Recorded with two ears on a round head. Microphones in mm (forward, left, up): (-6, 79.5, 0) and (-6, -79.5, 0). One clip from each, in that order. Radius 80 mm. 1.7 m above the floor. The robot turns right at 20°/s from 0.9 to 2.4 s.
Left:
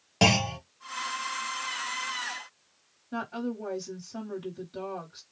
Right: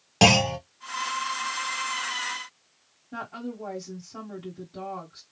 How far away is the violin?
I don't hear a violin.